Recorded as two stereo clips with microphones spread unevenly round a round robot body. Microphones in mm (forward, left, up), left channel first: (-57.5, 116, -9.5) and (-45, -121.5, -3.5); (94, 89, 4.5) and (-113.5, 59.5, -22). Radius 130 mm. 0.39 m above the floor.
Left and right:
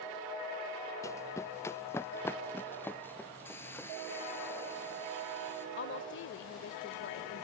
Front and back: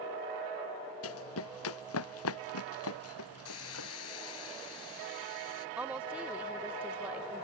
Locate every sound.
1.0 s running footsteps: 15° left; by 3.9 s 10° left
3.5 s a hiss: 10° left
5.8 s a woman speaking: 110° left